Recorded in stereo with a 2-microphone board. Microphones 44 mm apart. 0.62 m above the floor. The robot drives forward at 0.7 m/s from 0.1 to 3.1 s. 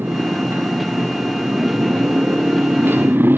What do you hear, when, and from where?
0.0 s a motorcycle: 60° right (ahead or behind); by 3.4 s 55° right (ahead or behind)